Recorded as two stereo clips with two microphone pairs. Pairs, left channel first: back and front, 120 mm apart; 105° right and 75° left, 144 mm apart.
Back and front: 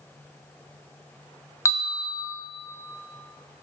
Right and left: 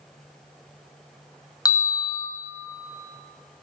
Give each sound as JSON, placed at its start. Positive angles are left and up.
{"t": 1.6, "sound": "a bell", "azimuth_deg": -140, "distance_m": 0.7}